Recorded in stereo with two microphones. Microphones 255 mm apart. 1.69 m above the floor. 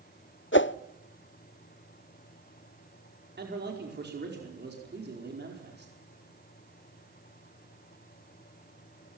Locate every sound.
0.5 s a whoosh: 50° left (ahead or behind), 0.6 m
3.4 s a man speaking: 40° right (ahead or behind), 4.5 m